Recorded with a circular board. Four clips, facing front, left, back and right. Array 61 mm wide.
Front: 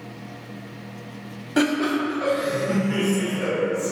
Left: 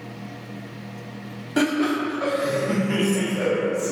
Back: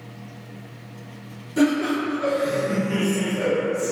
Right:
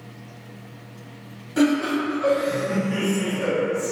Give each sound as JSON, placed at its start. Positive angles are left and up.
{"t": 1.6, "sound": "laughter", "azimuth_deg": 35, "distance_m": 0.9}